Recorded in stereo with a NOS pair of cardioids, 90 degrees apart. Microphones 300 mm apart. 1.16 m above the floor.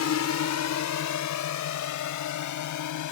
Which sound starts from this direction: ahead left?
A drone, at 0.0 s.